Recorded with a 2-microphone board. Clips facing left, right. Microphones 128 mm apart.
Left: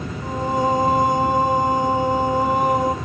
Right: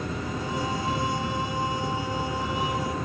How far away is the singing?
About 1.1 m.